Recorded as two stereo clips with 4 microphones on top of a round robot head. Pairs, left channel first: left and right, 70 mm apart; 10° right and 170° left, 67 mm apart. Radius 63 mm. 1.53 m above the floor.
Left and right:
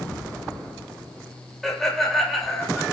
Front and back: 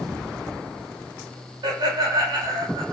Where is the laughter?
Straight behind, 8 m.